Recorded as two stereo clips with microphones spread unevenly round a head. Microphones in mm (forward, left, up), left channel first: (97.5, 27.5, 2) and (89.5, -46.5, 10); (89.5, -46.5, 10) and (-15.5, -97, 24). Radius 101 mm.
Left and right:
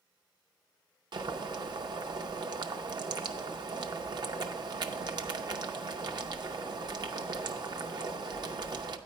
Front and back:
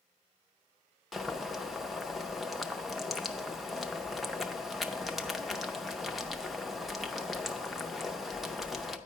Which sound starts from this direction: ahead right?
Boiling, at 1.1 s.